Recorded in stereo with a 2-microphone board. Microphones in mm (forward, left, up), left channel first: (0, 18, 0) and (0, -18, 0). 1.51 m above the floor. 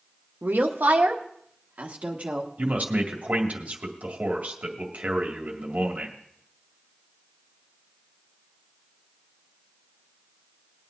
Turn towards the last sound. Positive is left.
turn(degrees=-45)  # may be behind; listen again after turning